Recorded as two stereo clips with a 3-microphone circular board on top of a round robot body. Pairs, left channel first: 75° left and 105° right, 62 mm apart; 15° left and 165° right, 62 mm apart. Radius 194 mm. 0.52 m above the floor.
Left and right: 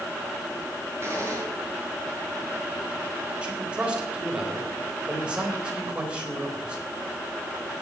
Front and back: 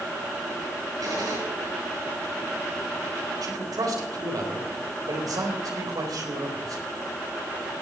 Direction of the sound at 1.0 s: 155° right.